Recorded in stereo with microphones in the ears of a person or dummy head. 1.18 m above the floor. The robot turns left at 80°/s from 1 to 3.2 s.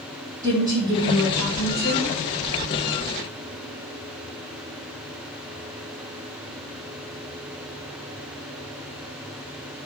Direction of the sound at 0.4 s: 165° right.